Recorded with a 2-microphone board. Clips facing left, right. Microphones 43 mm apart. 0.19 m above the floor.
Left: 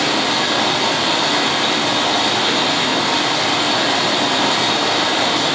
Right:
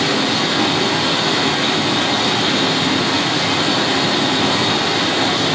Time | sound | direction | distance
0.0 | running water | 70° left (ahead or behind) | 1.2 m